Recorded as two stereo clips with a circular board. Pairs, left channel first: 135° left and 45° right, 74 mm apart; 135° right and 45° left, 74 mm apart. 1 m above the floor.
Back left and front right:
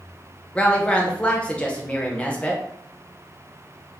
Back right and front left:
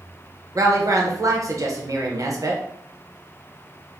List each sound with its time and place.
0.6 s a woman speaking: 65° left, 0.8 m